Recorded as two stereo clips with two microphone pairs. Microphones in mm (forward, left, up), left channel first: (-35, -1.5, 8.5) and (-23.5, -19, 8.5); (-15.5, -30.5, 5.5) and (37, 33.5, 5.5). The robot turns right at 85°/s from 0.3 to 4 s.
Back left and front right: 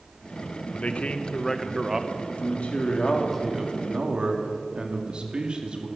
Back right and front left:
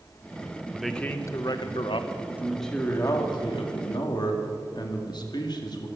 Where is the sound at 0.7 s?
130° left, 1.1 m; by 2.1 s 110° right, 1.1 m.